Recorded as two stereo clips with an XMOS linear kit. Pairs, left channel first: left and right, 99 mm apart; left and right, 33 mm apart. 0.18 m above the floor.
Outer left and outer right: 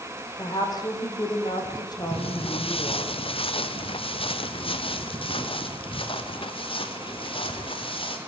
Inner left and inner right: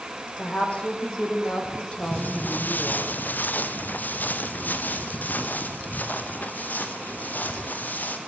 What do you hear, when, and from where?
0.4 s a woman speaking: 40° left (ahead or behind), 8 m
2.1 s footsteps: 70° left (ahead or behind), 1.1 m; by 8.2 s 65° left (ahead or behind), 4.5 m